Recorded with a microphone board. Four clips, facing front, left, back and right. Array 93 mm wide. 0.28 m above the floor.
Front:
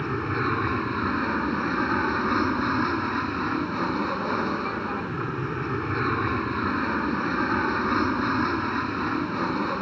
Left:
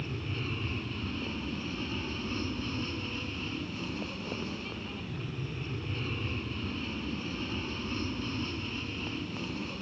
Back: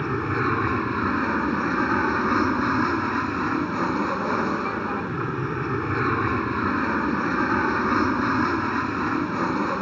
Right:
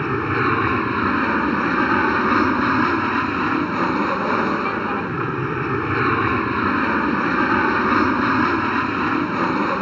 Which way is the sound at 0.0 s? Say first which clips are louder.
Right 18 dB, back 2 dB; 100° right.